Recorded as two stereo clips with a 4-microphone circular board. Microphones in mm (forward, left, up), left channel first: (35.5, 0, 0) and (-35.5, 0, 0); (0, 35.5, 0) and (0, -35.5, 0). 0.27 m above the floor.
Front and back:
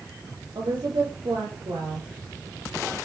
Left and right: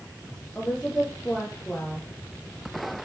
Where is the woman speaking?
165° left, 7 m.